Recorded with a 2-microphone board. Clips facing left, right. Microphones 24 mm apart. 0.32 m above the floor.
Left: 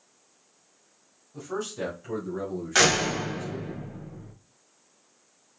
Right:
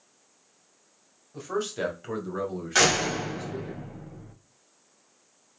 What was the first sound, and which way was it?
A man speaking, 25° right (ahead or behind).